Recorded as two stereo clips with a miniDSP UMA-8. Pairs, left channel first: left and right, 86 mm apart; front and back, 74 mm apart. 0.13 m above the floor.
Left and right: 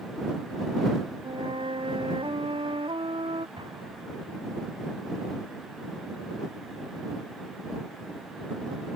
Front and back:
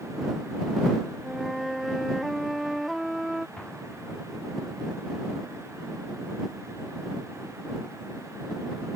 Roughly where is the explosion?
Right.